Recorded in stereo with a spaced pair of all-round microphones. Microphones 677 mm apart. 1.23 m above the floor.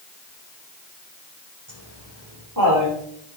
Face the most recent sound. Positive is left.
turn(degrees=-25)  # may be behind; listen again after turning